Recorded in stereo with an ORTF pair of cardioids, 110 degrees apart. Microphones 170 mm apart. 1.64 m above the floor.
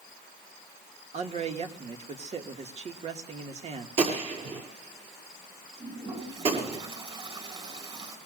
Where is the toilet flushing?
30° right, 7.5 m.